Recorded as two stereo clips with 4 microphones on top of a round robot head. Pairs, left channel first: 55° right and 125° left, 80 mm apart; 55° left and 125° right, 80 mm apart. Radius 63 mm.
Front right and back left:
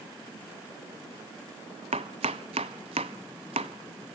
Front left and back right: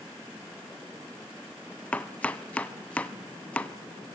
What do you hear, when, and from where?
1.9 s chopping: 125° left, 0.7 m